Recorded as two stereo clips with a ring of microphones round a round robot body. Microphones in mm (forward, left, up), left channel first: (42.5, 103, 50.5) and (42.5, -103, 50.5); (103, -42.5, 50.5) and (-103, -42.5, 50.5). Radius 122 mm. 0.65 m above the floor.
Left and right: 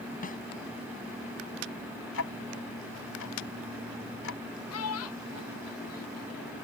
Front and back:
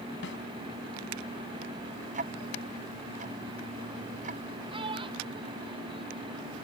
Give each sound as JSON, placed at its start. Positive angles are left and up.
{"t": 0.2, "sound": "a snare drum", "azimuth_deg": 40}
{"t": 2.1, "sound": "ticking", "azimuth_deg": 120}
{"t": 4.7, "sound": "a child speaking", "azimuth_deg": 110}